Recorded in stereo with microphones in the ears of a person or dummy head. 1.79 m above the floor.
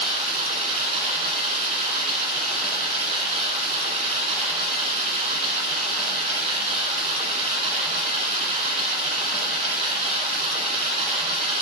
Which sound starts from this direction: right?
Running water, at 0.0 s.